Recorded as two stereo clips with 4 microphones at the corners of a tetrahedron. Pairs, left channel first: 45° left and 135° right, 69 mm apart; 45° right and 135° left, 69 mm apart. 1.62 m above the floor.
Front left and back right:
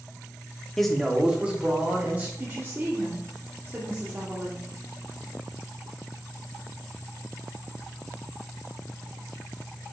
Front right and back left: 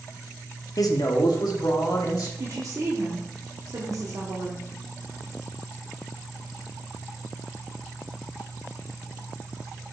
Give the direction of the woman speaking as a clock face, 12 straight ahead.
6 o'clock.